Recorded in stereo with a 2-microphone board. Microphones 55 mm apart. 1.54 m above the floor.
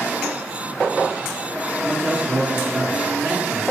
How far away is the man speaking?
About 2.5 m.